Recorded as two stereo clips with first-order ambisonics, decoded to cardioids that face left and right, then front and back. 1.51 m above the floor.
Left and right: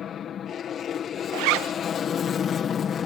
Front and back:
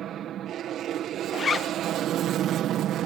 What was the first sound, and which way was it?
An aircraft, 140° left.